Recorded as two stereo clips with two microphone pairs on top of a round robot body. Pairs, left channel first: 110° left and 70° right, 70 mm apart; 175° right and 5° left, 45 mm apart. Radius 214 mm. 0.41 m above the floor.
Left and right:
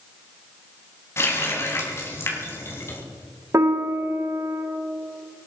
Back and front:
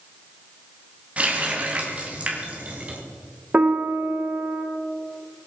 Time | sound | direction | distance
1.2 | a running tap | 60° left | 3 m
3.5 | a piano | 35° right | 2 m